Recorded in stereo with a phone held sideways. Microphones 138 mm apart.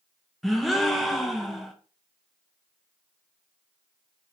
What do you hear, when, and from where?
0.4 s a gasp: centre (ahead or behind), 0.5 m